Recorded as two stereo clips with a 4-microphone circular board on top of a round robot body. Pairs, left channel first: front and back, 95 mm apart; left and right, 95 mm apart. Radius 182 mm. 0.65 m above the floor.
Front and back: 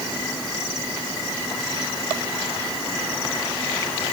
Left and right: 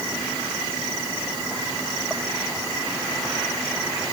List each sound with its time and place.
Only background noise.